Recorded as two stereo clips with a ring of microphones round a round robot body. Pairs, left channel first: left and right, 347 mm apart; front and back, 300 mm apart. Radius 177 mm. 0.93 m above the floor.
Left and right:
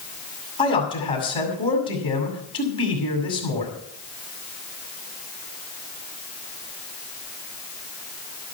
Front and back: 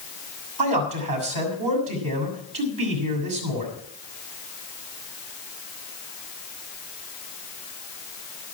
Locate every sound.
0.6 s a man speaking: 165° left, 6.5 m